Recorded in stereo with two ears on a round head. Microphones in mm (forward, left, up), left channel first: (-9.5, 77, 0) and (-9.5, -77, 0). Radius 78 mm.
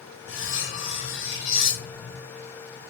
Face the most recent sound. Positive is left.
turn(degrees=85)